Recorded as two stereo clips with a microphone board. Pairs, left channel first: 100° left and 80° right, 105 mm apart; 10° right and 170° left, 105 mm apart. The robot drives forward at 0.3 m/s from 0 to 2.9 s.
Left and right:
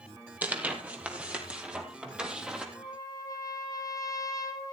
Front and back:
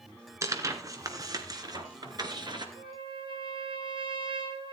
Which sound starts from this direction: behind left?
A trumpet, at 2.8 s.